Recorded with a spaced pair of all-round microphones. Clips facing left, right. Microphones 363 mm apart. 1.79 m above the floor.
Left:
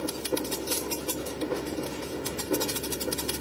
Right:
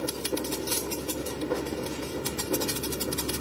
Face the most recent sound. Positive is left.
turn(degrees=-15)  # may be behind; listen again after turning